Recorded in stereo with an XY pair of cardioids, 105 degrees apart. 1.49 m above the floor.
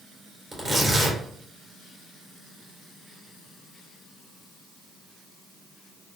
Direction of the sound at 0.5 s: 15° right.